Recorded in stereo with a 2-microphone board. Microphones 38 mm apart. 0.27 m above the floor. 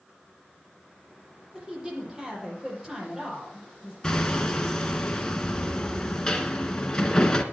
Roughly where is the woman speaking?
Centre.